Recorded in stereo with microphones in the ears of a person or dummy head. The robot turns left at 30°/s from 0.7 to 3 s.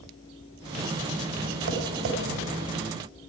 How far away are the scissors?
No scissors in this recording.